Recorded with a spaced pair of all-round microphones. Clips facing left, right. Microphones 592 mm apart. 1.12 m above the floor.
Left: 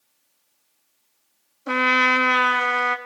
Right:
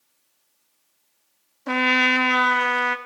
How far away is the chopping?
No chopping in this recording.